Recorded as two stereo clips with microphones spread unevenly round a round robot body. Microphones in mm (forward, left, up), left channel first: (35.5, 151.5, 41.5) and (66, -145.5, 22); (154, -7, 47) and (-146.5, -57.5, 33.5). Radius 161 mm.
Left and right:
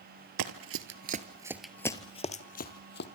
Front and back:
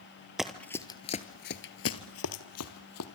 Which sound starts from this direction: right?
Running footsteps, at 0.4 s.